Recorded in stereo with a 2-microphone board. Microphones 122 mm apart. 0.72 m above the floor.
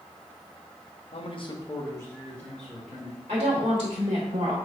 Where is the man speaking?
50° left (ahead or behind), 0.7 m; by 3.2 s 5° left (ahead or behind), 2 m.